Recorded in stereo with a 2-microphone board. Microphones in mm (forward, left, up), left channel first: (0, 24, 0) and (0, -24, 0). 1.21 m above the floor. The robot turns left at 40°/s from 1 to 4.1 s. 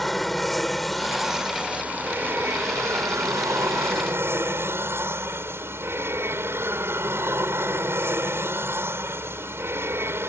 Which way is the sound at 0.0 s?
Straight ahead.